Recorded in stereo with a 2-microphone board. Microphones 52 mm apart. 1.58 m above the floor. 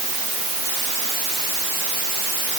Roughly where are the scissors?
I don't hear scissors.